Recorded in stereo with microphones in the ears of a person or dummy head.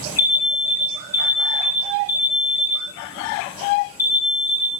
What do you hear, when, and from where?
0.2 s an alarm: 50° left (ahead or behind), 6 m